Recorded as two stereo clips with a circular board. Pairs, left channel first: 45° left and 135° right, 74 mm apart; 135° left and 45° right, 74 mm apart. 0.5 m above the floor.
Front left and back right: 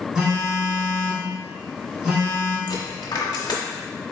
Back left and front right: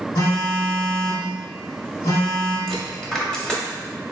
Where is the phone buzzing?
145° left, 1.7 m.